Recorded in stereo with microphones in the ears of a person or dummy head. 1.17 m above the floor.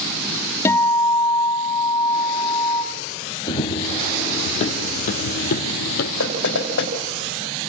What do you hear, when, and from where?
0.7 s a guitar: 15° left (ahead or behind), 1.5 m
3.5 s running footsteps: 25° left (ahead or behind), 2 m; by 6.1 s 55° left (ahead or behind), 2.5 m
6.2 s knocking: 75° left (ahead or behind), 4.5 m